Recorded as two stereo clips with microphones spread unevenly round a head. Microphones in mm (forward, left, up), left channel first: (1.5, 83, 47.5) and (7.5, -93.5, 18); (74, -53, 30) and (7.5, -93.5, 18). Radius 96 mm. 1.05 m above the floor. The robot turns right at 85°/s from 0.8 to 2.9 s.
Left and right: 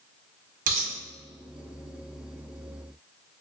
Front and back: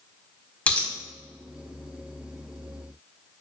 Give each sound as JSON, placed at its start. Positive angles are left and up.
{"t": 0.7, "sound": "a dropped coin", "azimuth_deg": -40, "distance_m": 0.7}